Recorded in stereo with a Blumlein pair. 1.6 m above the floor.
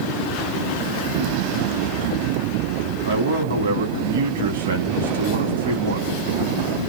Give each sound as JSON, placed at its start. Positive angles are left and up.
{"t": 3.0, "sound": "a man speaking", "azimuth_deg": -65, "distance_m": 0.9}